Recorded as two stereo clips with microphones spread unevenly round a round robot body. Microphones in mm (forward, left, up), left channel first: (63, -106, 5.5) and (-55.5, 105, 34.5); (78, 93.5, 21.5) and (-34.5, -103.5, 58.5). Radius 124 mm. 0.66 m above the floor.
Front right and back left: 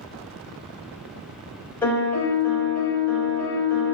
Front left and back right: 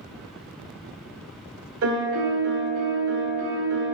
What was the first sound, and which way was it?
A piano, 145° right.